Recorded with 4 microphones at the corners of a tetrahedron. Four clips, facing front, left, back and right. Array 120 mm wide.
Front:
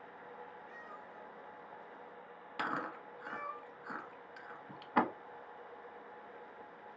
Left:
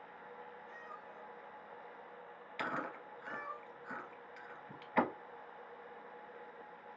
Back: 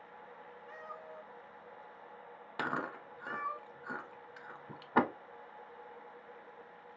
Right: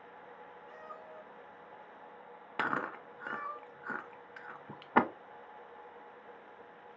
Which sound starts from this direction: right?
Chewing, at 2.6 s.